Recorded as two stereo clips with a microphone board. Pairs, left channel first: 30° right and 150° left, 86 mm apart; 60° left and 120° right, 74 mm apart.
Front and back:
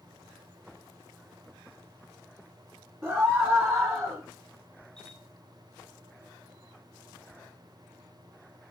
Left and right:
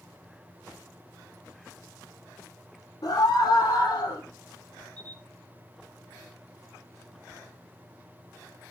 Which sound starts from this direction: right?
A camera shutter, at 5.0 s.